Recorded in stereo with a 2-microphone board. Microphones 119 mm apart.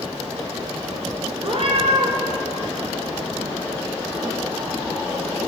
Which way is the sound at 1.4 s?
60° right (ahead or behind).